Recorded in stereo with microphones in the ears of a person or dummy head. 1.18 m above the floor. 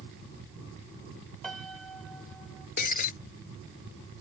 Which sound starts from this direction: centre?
A piano, at 1.4 s.